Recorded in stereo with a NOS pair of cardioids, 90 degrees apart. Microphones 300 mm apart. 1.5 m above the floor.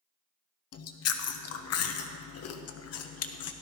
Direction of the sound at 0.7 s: 60° left.